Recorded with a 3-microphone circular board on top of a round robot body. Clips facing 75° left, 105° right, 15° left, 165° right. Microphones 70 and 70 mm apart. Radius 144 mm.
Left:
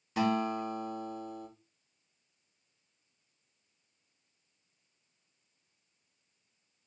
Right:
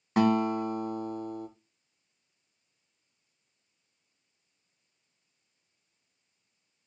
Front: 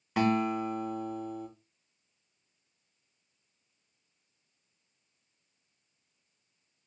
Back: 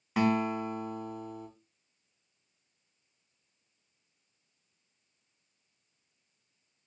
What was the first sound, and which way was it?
A guitar, 75° right.